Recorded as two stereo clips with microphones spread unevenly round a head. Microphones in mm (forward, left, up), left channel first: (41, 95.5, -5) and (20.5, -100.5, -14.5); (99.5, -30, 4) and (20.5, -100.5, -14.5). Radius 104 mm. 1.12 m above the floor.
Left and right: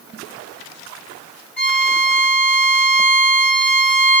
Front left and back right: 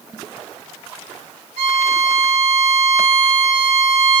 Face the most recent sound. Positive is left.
turn(degrees=170)